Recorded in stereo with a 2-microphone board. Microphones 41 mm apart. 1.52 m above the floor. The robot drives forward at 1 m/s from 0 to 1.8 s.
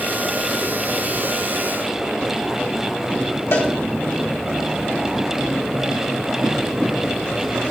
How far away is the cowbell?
About 1.7 m.